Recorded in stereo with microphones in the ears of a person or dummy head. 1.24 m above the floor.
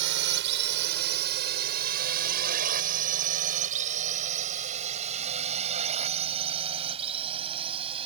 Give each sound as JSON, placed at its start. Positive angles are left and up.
{"t": 0.0, "sound": "a drone", "side_deg": -65}